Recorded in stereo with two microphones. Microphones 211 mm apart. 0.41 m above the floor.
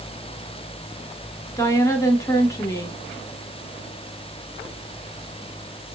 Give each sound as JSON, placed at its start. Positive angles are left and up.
{"t": 1.6, "sound": "a woman speaking", "side_deg": 15, "distance_m": 0.9}